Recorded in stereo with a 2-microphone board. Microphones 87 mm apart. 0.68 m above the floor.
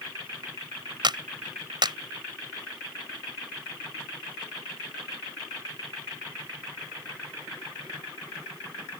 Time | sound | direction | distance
1.0 | a clap | 60° right (ahead or behind) | ?